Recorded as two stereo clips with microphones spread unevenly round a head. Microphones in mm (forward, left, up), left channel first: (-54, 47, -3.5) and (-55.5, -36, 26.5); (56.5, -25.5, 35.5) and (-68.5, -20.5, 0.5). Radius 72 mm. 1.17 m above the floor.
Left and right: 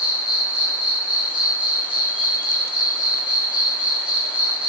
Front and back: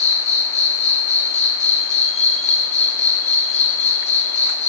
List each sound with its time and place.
0.0 s an insect: 5° left, 0.8 m